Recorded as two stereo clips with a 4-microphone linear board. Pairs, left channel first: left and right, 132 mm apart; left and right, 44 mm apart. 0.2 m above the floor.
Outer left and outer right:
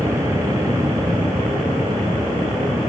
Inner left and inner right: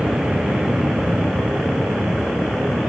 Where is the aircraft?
25° right (ahead or behind).